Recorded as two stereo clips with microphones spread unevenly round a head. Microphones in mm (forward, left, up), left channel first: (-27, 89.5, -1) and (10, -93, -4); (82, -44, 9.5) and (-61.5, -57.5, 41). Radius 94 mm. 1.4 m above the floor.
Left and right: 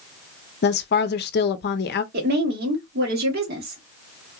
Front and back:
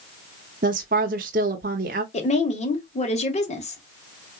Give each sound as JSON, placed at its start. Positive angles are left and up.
{"t": 0.6, "sound": "a woman speaking", "azimuth_deg": 140, "distance_m": 0.6}
{"t": 2.1, "sound": "a woman speaking", "azimuth_deg": -40, "distance_m": 1.7}